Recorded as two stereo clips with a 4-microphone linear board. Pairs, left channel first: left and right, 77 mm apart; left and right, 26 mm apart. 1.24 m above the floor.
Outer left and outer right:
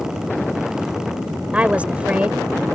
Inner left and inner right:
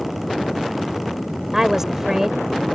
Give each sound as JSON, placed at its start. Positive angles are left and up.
{"t": 1.5, "sound": "a woman speaking", "side_deg": -15}